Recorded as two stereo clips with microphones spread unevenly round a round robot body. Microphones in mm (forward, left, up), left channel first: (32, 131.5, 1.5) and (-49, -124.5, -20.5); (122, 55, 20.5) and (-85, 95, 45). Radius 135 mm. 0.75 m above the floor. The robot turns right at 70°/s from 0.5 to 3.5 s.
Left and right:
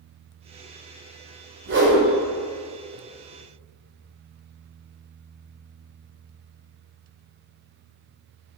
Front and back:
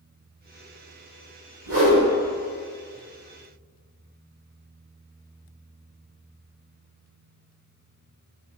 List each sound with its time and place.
1.6 s a whoosh: 165° right, 1.8 m; by 2.0 s 140° right, 1.8 m